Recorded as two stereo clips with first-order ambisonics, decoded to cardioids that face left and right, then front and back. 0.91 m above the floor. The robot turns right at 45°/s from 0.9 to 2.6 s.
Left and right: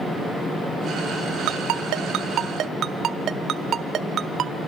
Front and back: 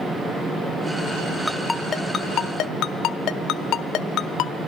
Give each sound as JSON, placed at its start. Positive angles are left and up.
{"t": 1.5, "sound": "a ringtone", "azimuth_deg": -90, "distance_m": 1.0}